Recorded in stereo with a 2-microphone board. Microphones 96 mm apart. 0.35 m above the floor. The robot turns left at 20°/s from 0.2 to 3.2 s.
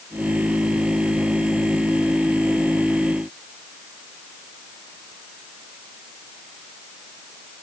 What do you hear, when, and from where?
Only background noise.